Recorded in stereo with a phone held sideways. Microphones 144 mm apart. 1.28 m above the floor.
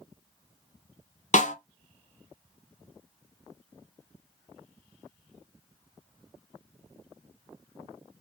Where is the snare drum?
55° left (ahead or behind), 0.9 m.